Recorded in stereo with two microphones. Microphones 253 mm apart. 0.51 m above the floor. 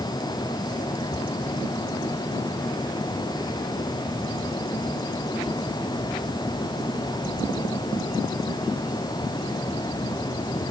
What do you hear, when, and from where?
Only background noise.